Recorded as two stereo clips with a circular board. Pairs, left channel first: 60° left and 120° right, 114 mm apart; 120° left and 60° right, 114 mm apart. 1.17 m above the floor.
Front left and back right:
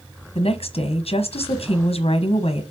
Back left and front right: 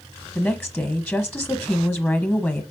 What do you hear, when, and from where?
0.3 s a woman speaking: 50° left, 1.1 m